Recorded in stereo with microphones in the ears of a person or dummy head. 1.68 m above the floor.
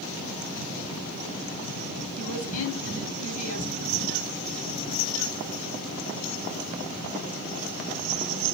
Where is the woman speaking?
55° left (ahead or behind), 9 m.